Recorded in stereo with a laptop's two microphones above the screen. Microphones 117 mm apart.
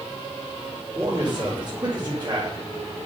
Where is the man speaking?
35° right (ahead or behind), 3 m.